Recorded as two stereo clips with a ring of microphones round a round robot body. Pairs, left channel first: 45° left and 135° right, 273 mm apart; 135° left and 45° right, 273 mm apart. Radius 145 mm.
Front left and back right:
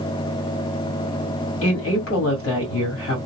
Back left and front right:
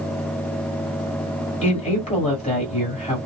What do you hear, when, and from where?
1.6 s a woman speaking: 70° left, 1.8 m